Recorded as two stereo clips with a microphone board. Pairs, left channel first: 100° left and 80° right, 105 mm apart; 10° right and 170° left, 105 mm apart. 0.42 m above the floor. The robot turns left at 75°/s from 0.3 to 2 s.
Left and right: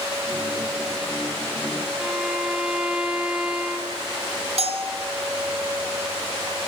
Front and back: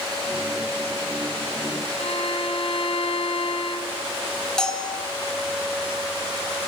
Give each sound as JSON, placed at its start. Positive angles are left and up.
{"t": 2.0, "sound": "a violin", "azimuth_deg": 5, "distance_m": 1.9}
{"t": 4.6, "sound": "a bell", "azimuth_deg": -95, "distance_m": 1.5}